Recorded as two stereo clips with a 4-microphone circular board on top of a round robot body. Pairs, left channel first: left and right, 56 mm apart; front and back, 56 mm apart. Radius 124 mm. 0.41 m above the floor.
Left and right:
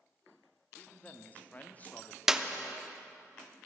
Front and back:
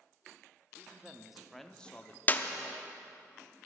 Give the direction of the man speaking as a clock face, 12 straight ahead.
7 o'clock.